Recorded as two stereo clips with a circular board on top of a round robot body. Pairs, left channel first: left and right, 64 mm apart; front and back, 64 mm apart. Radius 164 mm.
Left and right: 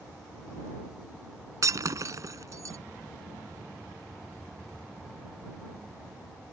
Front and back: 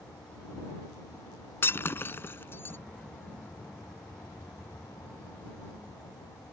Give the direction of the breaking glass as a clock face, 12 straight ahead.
2 o'clock.